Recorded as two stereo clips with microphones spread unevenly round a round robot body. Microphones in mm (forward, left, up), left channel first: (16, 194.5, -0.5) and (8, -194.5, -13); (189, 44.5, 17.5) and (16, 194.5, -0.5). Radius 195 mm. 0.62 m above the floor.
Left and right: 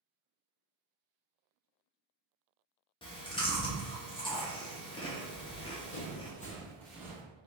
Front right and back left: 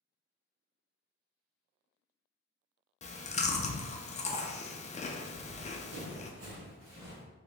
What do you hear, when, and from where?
3.0 s chewing: 15° left, 0.5 m
5.3 s running footsteps: 135° left, 1.9 m; by 7.2 s 165° right, 1.0 m